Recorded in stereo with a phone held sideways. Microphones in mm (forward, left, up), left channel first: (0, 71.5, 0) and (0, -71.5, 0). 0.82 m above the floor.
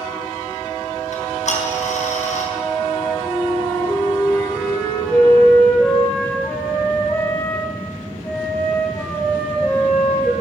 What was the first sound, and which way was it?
Ticking, 60° left (ahead or behind).